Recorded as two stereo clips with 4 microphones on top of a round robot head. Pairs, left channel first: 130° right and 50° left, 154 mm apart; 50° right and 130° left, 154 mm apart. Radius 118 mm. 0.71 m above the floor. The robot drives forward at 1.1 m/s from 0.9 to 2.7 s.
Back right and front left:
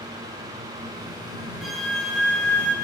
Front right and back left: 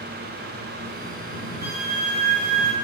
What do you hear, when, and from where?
1.6 s a flute: 140° left, 3 m; by 2.7 s 150° left, 4 m